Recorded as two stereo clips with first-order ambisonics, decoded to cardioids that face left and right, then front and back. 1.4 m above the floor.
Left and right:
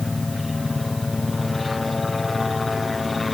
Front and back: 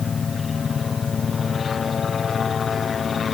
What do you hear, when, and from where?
0.0 s a helicopter: 25° left; by 3.3 s 30° left